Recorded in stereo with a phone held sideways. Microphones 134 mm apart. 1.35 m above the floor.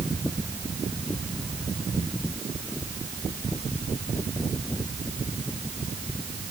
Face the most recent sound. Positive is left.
No sound to turn to.